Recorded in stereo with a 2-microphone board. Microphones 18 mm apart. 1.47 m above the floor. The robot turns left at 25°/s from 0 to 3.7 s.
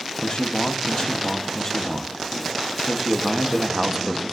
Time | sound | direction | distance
0.2 | a man speaking | 70° left | 1.0 m